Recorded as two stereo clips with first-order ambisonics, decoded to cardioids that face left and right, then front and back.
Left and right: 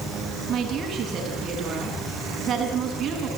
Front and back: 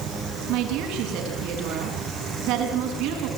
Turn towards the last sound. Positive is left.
turn(degrees=-150)